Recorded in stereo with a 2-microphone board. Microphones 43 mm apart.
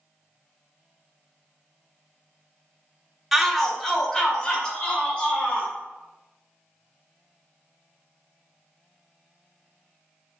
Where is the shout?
Centre (ahead or behind), 0.8 m; by 5.7 s 30° left (ahead or behind), 2 m.